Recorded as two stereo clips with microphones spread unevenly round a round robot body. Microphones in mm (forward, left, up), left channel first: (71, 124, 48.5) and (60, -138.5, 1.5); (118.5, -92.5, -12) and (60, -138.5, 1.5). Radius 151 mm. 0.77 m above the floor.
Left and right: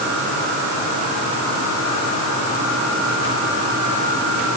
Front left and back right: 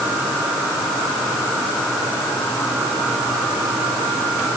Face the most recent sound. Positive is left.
No sound to turn to.